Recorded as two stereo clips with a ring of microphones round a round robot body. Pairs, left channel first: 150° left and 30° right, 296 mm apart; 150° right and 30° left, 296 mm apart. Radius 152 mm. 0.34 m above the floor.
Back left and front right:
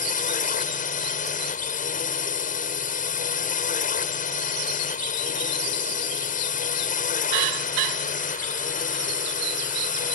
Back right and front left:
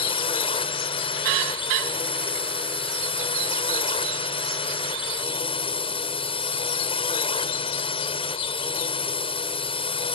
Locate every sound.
0.0 s a drone: 160° left